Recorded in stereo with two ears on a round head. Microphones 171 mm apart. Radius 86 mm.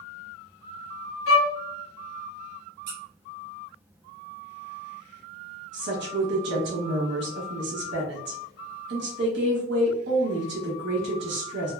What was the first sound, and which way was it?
A violin, 75° left (ahead or behind).